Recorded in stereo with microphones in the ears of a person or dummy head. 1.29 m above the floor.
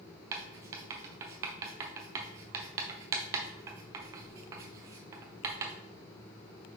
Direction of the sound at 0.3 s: 20° right (ahead or behind).